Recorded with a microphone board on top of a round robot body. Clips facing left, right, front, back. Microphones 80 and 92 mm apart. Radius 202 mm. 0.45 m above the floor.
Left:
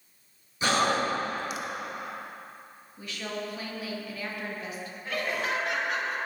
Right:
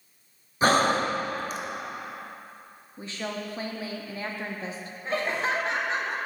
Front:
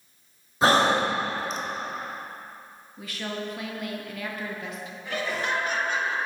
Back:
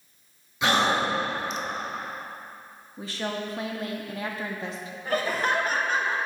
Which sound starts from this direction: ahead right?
Breathing, at 0.6 s.